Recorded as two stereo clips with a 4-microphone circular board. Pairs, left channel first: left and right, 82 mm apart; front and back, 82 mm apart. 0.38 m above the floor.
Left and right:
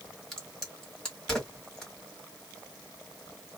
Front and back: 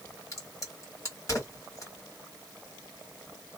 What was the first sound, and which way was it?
A crack, 10° left.